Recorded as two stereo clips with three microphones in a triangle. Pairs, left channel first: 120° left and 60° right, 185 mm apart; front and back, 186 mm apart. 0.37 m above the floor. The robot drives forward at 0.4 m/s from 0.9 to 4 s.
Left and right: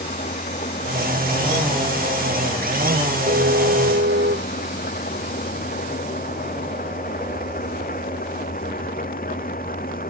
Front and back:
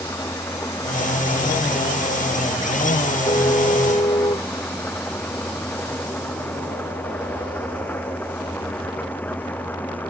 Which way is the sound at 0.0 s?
75° left.